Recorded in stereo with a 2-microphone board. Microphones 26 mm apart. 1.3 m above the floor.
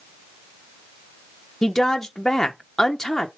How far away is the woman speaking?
About 1.1 m.